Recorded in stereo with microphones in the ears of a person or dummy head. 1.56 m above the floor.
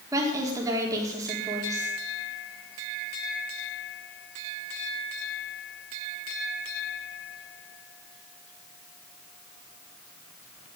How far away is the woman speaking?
About 4 m.